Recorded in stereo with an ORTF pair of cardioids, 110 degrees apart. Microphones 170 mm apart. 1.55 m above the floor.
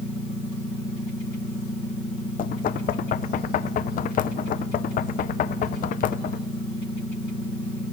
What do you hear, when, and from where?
2.4 s knocking: 55° left, 0.8 m